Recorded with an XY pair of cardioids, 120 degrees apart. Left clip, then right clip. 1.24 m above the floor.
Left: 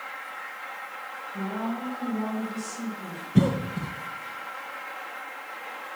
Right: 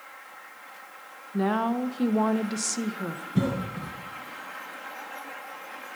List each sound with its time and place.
1.3 s a woman speaking: 70° right, 0.8 m
3.4 s a cough: 30° left, 0.9 m